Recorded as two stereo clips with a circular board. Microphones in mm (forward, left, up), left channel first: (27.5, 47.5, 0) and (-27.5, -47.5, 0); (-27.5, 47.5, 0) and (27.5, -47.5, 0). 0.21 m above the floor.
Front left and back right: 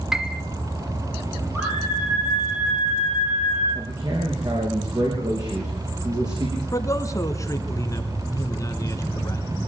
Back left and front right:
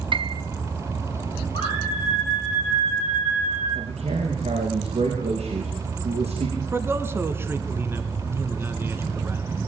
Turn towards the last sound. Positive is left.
turn(degrees=5)